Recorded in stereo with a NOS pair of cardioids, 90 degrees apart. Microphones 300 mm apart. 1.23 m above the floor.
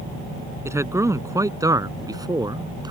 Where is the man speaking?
10° right; by 2.9 s 15° right.